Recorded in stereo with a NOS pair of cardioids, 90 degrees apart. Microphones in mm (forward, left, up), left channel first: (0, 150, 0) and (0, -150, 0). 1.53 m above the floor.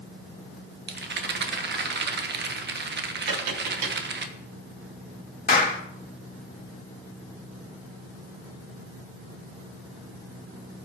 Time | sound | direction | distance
0.9 | a rattle | 35° right | 1.4 m
3.3 | tapping | 60° right | 3.5 m
5.5 | a clap | 30° left | 2 m